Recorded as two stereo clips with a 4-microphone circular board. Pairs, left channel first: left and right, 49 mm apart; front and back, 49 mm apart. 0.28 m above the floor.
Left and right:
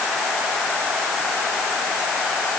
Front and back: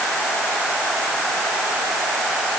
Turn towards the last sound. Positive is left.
No sound to turn to.